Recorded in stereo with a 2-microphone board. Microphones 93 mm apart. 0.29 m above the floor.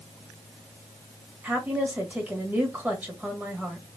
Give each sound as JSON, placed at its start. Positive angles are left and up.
{"t": 1.4, "sound": "a woman speaking", "side_deg": -20, "distance_m": 1.5}